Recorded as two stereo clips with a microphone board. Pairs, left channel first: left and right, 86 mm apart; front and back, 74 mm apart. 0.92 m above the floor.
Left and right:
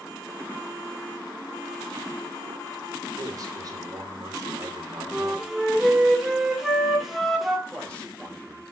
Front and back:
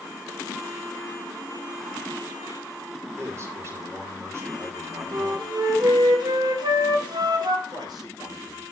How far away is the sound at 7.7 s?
About 5 m.